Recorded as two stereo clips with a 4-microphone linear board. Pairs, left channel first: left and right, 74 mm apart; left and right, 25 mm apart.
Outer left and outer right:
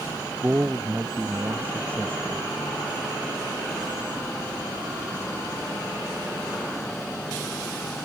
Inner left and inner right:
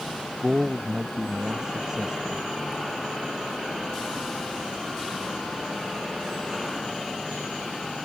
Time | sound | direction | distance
0.4 | a man speaking | 20° right (ahead or behind) | ?